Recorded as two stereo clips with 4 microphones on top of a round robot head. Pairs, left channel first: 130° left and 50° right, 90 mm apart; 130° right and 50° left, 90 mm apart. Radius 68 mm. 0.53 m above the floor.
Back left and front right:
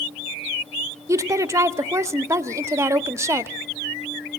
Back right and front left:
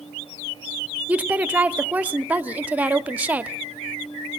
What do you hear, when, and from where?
1.1 s a woman speaking: 15° right, 0.9 m